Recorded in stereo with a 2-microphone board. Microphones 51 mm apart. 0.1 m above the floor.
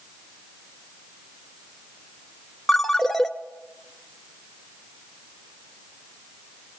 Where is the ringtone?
10° left (ahead or behind), 0.6 m.